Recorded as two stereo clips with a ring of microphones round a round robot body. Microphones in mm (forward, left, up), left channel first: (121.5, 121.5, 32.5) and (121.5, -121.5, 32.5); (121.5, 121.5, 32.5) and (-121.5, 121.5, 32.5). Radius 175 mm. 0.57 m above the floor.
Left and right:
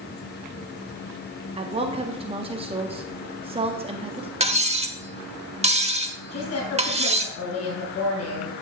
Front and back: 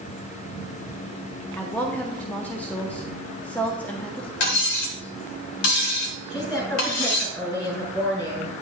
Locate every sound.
1.6 s a woman speaking: 75° right, 0.7 m
4.4 s cutlery clinking: 25° right, 1.2 m
6.3 s a woman speaking: 80° left, 3.5 m